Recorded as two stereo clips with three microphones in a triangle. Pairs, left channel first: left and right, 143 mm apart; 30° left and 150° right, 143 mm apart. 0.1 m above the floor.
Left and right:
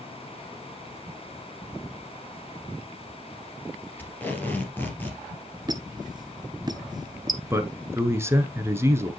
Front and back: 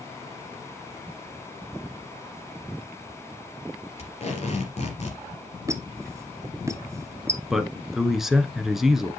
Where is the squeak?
105° right, 0.7 m.